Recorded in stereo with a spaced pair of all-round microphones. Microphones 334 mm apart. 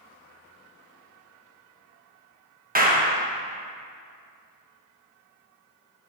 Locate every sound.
2.8 s a clap: 25° right (ahead or behind), 1.1 m